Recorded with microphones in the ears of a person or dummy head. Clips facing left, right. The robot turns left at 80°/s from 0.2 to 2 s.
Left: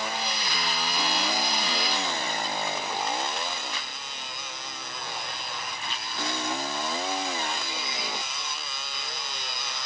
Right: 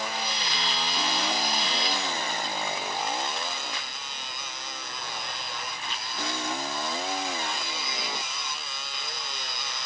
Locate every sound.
Only background noise.